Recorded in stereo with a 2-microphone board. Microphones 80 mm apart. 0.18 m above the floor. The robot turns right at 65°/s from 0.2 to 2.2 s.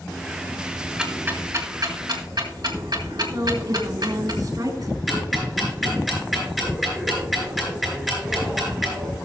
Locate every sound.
1.0 s ticking: 10° right (ahead or behind), 2.0 m; by 4.3 s 60° right (ahead or behind), 2.0 m
3.3 s a woman speaking: 50° right (ahead or behind), 3 m
5.1 s ticking: centre (ahead or behind), 5 m